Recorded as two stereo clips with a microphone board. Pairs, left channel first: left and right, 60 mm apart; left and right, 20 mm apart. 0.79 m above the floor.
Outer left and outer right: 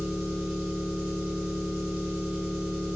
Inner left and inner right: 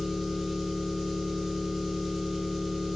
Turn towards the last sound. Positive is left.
turn(degrees=-20)  # may be behind; listen again after turning